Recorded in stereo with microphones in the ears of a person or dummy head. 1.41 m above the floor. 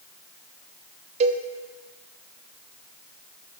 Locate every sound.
1.2 s a cowbell: 35° right (ahead or behind), 0.7 m